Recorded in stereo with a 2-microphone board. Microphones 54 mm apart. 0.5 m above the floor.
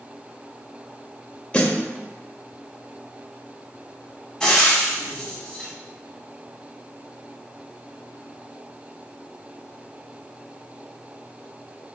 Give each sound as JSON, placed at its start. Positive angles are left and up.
{"t": 1.5, "sound": "a snare drum", "side_deg": 20, "distance_m": 0.7}
{"t": 4.4, "sound": "frying", "side_deg": 10, "distance_m": 1.3}